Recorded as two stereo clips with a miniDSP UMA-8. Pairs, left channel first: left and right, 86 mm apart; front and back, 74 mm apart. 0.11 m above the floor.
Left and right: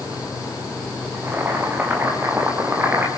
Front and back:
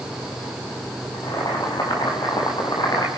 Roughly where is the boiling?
Ahead.